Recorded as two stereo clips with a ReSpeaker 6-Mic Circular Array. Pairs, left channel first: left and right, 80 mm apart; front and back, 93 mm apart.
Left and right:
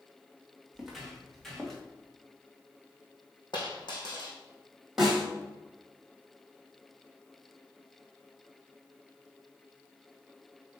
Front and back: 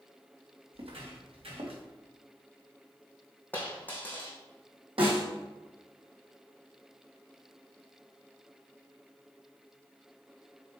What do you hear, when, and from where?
0.7 s footsteps: straight behind, 3 m; by 1.8 s 175° left, 3.5 m
3.5 s a dropped coin: 70° left, 3 m
5.0 s a snare drum: 175° right, 4 m